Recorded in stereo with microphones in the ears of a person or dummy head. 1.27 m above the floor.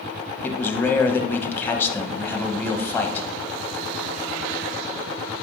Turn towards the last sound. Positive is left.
turn(degrees=15)  # may be behind; listen again after turning